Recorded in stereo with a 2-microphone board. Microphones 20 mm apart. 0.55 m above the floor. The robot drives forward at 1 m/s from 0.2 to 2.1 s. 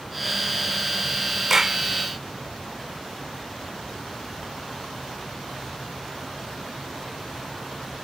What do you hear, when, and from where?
1.5 s a clap: 20° right (ahead or behind); by 1.8 s 25° right (ahead or behind)